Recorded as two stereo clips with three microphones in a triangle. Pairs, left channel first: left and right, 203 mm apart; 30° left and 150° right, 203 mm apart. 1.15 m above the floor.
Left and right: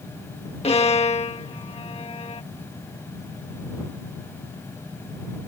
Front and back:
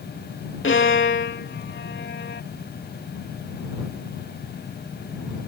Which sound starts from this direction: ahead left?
A violin, at 0.6 s.